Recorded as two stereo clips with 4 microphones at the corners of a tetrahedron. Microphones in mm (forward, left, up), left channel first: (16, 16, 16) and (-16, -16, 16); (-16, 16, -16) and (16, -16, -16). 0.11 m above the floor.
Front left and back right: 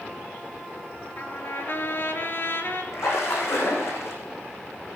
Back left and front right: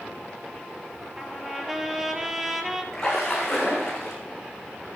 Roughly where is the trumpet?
Ahead left.